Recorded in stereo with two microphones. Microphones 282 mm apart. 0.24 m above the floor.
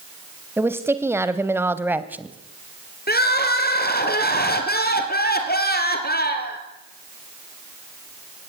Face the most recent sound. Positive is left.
turn(degrees=35)  # may be behind; listen again after turning